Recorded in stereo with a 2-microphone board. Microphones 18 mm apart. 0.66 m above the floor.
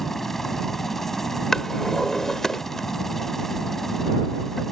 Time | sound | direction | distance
0.0 | a helicopter | 15° left (ahead or behind) | ?
1.5 | a drawer | 25° left (ahead or behind) | ?